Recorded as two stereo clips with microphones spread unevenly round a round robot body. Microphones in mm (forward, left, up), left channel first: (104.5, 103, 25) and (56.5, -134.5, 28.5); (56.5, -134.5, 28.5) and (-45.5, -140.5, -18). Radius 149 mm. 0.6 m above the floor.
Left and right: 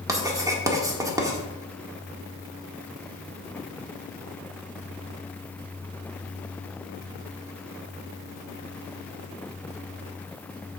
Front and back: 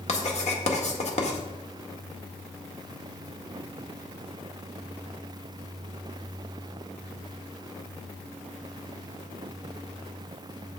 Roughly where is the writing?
Ahead right.